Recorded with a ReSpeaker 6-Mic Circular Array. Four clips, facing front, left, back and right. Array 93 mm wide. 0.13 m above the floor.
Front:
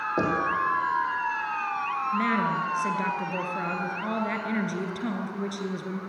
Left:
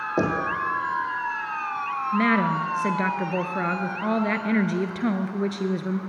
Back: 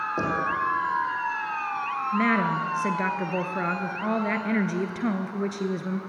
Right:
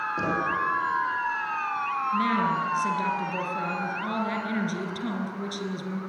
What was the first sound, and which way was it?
Knocking, 75° left.